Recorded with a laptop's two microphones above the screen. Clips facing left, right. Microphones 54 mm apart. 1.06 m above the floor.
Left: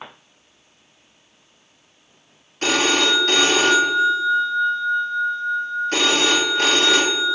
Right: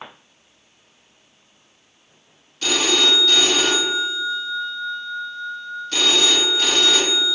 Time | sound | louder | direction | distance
2.6 | a phone ringing | left 2 dB | 40° left (ahead or behind) | 0.6 m